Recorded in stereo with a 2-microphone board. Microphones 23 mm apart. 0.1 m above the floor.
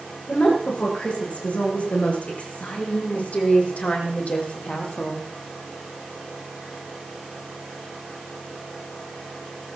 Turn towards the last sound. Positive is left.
turn(degrees=60)  # may be behind; listen again after turning